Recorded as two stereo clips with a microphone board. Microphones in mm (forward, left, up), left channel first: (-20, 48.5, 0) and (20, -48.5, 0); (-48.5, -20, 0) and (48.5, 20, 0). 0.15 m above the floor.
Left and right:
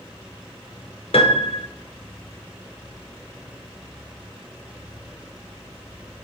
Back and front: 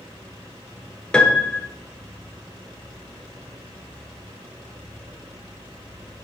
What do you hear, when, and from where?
1.1 s a piano: 120° left, 0.5 m